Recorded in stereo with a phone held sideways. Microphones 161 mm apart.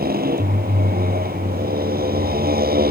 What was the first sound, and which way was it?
A motorcycle, 70° right (ahead or behind).